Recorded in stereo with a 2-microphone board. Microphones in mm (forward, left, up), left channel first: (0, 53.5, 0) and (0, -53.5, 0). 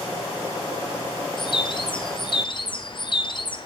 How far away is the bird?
About 1.2 m.